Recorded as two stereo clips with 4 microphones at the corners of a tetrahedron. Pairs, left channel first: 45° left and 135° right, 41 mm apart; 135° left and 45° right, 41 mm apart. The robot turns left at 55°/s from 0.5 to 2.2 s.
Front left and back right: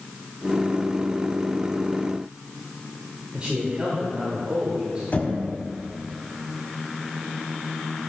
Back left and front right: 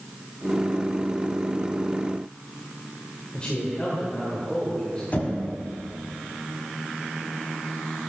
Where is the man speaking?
Straight behind, 1.5 m.